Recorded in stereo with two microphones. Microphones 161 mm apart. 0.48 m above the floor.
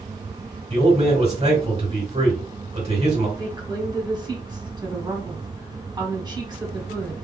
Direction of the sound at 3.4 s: 25° right (ahead or behind).